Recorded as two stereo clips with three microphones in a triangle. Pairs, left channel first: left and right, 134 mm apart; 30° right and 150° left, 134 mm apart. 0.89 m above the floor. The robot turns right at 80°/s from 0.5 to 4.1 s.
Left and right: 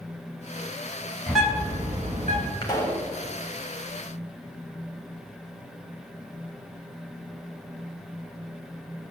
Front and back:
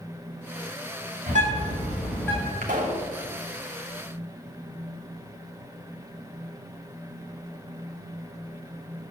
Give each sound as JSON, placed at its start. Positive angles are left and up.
{"t": 1.3, "sound": "a bird", "azimuth_deg": 170, "distance_m": 4.5}
{"t": 2.6, "sound": "a pop", "azimuth_deg": 145, "distance_m": 3.0}